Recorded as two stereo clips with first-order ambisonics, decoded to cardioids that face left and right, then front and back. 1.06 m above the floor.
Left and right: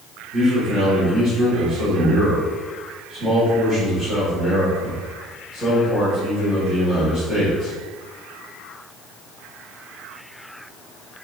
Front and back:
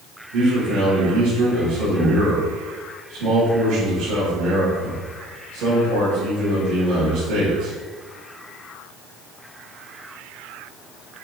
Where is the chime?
No chime in this recording.